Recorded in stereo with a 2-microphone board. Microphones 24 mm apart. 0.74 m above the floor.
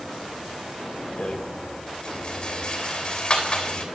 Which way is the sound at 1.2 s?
40° left (ahead or behind).